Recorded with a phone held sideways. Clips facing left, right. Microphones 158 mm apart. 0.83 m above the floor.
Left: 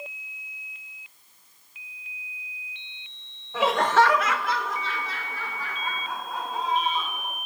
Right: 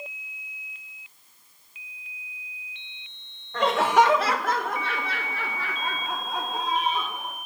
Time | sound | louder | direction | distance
3.5 | laughter | right 1 dB | 10° left (ahead or behind) | 0.7 m